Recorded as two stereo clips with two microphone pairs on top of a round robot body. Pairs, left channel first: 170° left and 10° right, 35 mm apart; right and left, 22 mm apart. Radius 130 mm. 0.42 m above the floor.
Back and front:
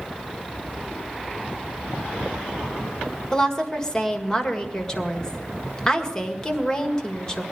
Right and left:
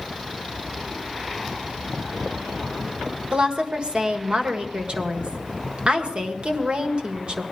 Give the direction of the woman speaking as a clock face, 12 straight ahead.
9 o'clock.